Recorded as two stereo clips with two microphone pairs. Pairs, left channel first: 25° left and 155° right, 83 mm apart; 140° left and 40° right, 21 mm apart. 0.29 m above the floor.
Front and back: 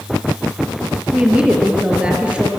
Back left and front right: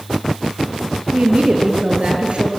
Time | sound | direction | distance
1.1 | a woman speaking | 80° right | 5 m